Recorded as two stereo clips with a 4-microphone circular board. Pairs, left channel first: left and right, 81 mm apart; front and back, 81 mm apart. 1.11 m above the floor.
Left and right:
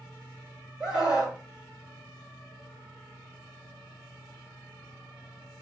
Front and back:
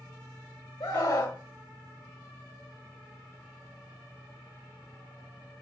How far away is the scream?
About 3 m.